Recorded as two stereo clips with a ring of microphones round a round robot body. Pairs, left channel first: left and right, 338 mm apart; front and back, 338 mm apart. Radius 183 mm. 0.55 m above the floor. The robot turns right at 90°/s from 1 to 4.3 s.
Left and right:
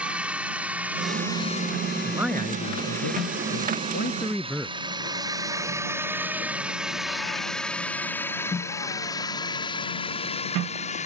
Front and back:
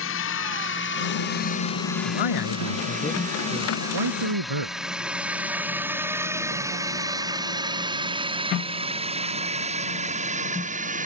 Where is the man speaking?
20° right; by 4.8 s straight behind.